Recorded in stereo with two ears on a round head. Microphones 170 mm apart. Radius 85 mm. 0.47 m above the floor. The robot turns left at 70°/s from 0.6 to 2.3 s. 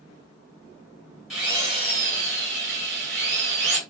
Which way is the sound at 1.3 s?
Straight ahead.